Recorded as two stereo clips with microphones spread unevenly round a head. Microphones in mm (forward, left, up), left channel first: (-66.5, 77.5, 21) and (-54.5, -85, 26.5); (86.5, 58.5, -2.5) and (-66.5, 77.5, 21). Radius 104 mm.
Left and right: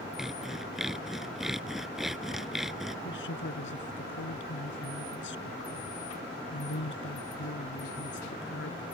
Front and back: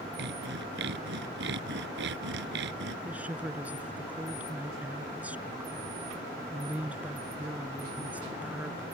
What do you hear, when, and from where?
0.2 s sawing: 175° right
3.0 s a woman speaking: 95° left